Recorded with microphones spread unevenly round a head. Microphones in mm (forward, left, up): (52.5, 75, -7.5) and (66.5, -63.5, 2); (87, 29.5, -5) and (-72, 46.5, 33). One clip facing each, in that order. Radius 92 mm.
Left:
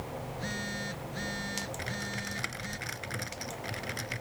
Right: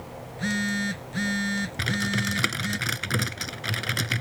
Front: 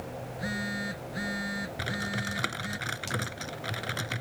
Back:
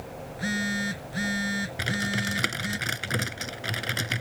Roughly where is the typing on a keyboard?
Behind right.